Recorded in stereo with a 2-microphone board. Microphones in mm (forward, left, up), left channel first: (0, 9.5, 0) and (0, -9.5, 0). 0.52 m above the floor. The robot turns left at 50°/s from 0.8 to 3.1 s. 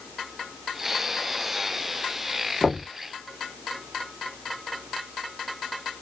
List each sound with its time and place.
2.6 s knocking: 45° left (ahead or behind), 1.0 m; by 2.9 s 40° left (ahead or behind), 1.0 m